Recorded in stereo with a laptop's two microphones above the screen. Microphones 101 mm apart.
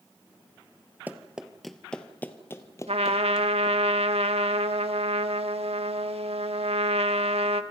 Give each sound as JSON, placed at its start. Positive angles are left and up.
{"t": 1.1, "sound": "running footsteps", "side_deg": -15, "distance_m": 1.5}
{"t": 2.9, "sound": "a trumpet", "side_deg": -80, "distance_m": 1.3}